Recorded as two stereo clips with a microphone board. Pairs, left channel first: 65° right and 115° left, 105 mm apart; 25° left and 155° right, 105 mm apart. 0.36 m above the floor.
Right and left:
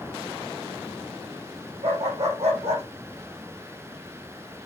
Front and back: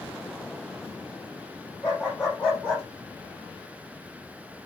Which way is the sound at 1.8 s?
100° left.